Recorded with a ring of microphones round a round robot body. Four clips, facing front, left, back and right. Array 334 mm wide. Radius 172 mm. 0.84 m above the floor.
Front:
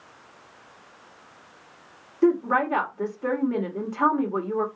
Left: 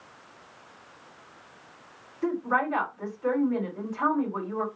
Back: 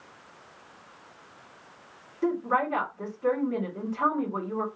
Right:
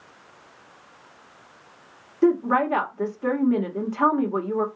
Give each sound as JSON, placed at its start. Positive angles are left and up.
{"t": 2.2, "sound": "a woman speaking", "azimuth_deg": -60, "distance_m": 2.0}